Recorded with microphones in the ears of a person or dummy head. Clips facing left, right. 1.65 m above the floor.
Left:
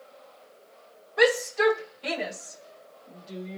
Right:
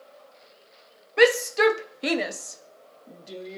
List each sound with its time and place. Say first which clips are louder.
1.2 s a shout: right 3 dB; 40° right (ahead or behind), 0.8 m; by 3.6 s 65° right (ahead or behind), 1.4 m